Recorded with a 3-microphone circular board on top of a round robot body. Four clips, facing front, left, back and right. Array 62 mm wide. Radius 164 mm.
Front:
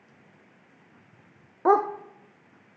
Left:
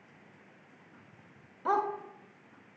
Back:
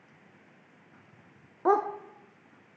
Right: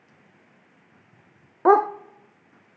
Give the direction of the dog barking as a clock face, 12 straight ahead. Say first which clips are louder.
Right 12 dB, front 4 dB; 3 o'clock.